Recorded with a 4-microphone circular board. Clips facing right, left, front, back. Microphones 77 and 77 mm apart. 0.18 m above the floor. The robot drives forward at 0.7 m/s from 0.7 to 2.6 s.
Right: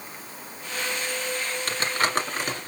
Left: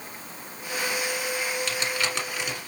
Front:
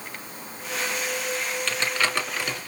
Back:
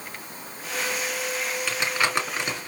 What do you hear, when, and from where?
1.7 s crumpling: 105° right, 2 m; by 2.7 s 125° right, 2.5 m